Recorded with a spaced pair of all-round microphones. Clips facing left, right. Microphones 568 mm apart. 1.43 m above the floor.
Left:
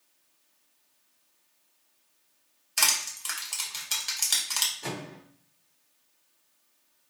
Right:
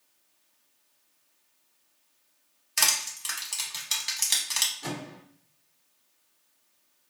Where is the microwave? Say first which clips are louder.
Right 1 dB; 15° right (ahead or behind), 0.7 m.